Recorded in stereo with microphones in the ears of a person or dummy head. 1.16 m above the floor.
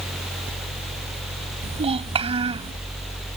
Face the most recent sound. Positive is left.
turn(degrees=-30)  # may be behind; listen again after turning